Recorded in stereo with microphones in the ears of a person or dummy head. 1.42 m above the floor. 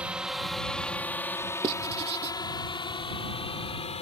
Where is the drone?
5° right (ahead or behind); by 4.0 s 35° left (ahead or behind).